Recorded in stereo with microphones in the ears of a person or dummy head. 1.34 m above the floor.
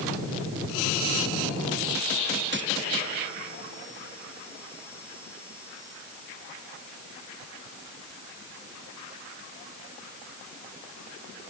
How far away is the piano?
No piano in this recording.